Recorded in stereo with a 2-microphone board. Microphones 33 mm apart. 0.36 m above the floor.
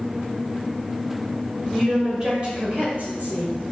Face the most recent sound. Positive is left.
turn(degrees=-55)  # may be behind; listen again after turning